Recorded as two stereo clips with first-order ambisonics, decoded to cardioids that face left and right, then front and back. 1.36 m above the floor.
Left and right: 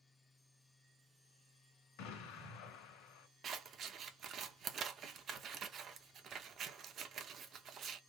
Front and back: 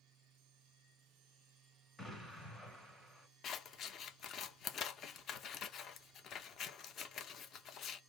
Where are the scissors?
40° right, 0.7 m.